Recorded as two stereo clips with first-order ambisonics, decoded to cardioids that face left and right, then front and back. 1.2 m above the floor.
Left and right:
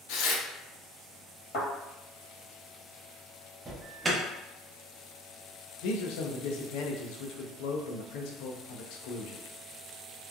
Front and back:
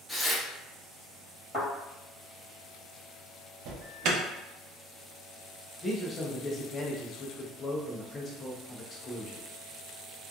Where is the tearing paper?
85° left, 0.7 m.